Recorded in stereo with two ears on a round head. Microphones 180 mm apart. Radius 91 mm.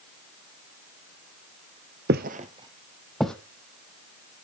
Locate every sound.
2.1 s footsteps: 55° right (ahead or behind), 0.9 m; by 3.4 s 5° left (ahead or behind), 1.5 m